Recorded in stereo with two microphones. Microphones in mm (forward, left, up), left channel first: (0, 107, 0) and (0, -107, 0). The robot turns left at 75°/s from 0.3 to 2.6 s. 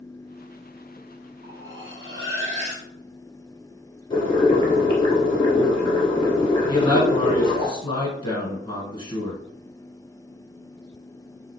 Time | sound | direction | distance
1.4 | cutlery clinking | 55° right | 1.8 m
4.1 | boiling | 25° left (ahead or behind) | 1.7 m
6.7 | a man speaking | 20° left (ahead or behind) | 1.6 m